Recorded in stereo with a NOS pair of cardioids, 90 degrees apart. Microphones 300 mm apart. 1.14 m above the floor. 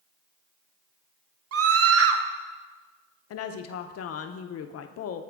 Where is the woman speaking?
60° left, 0.6 m.